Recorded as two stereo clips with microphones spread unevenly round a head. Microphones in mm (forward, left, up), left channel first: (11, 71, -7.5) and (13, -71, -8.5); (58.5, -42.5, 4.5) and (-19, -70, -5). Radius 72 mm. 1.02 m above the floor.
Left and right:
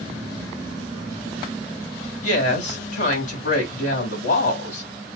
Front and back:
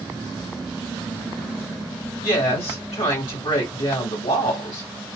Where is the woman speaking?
55° left, 1.9 m.